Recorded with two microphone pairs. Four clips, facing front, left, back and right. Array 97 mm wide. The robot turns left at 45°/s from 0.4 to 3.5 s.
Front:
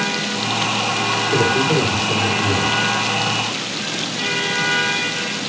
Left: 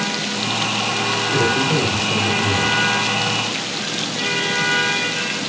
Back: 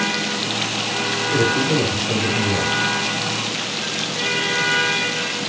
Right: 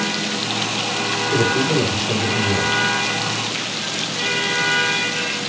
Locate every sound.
1.3 s a man speaking: 80° right, 3.5 m; by 2.7 s 145° right, 3.5 m